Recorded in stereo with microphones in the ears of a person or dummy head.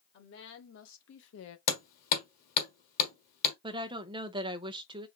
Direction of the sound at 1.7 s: 45° left (ahead or behind).